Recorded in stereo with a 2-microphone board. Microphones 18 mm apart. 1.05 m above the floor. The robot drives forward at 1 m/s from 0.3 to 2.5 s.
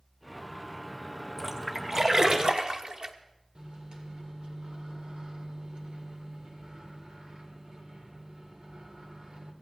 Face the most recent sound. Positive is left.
turn(degrees=-60)  # may be behind; listen again after turning